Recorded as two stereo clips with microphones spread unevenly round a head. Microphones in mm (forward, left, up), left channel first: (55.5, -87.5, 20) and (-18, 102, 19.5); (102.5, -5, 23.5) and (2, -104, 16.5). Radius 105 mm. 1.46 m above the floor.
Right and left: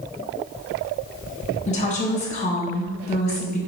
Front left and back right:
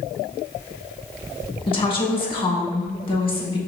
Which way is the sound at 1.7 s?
10° right.